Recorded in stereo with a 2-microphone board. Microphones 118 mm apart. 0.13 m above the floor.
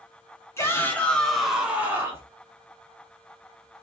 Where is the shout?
25° left (ahead or behind), 1.1 m; by 2.3 s 25° right (ahead or behind), 1.1 m.